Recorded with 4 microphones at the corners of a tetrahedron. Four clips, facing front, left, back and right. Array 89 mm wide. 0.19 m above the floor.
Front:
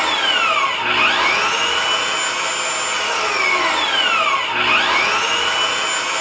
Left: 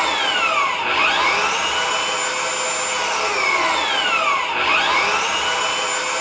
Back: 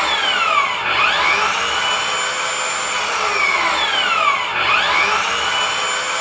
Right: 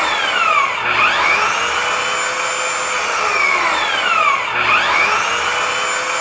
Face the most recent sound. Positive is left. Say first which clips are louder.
# right 3 dB, even
turn(degrees=-95)